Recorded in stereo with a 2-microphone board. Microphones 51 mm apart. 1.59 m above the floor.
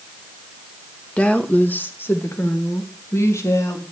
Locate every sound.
1.2 s a woman speaking: 25° left (ahead or behind), 1.6 m; by 3.8 s 75° left (ahead or behind), 3 m